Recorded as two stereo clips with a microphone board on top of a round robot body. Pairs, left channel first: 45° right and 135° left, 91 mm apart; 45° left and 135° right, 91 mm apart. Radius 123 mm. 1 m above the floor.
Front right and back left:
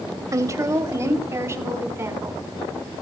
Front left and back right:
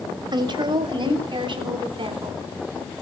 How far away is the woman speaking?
About 2.5 m.